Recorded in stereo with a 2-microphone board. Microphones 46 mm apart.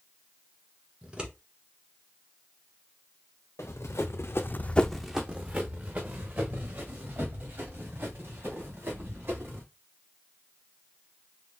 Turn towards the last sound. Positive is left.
turn(degrees=-55)  # may be behind; listen again after turning